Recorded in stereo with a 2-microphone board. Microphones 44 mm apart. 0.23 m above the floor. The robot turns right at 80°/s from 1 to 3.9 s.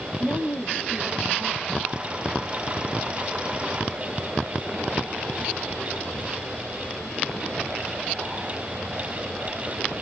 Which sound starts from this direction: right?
A woman speaking, at 0.2 s.